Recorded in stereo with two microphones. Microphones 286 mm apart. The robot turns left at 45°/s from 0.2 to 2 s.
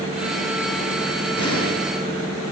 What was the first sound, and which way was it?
An explosion, 75° left (ahead or behind).